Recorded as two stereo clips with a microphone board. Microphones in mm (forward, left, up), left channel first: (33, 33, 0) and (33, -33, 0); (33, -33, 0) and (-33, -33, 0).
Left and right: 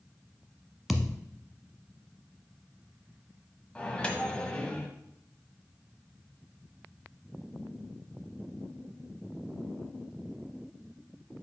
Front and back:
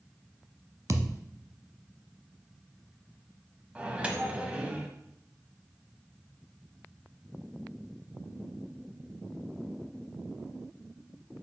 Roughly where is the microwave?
Behind left.